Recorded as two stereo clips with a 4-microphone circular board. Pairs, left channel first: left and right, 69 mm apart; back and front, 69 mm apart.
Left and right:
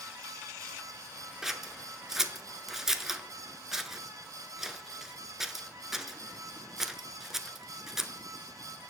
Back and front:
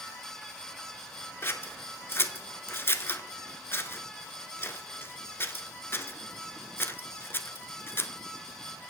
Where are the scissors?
170° right, 0.7 m.